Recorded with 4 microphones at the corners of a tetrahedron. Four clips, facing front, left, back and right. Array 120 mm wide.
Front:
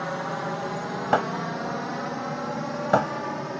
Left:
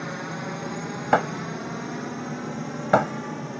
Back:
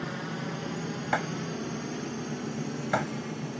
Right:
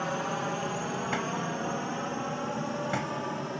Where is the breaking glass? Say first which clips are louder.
Left 8 dB, front 7 dB; 60° left.